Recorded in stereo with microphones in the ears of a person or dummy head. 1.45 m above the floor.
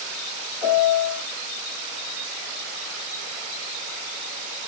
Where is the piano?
Centre (ahead or behind), 3.5 m.